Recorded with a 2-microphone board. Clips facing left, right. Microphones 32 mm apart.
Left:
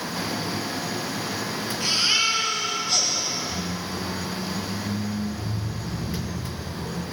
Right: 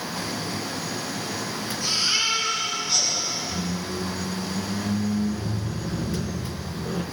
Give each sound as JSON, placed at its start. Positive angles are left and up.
{"t": 1.8, "sound": "a baby crying", "side_deg": 80, "distance_m": 5.5}
{"t": 3.5, "sound": "a squeak", "side_deg": -45, "distance_m": 1.2}